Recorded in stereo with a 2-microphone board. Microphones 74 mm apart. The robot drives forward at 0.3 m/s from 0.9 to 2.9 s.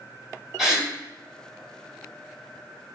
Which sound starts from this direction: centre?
A gasp, at 0.6 s.